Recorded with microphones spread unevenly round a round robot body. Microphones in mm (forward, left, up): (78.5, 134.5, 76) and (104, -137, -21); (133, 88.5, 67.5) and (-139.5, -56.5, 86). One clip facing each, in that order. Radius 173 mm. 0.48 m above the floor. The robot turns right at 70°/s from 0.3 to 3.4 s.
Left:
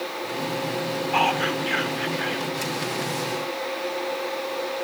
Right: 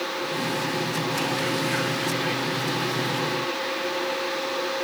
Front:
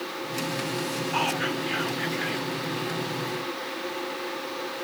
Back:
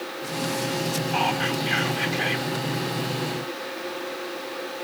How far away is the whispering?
About 3 m.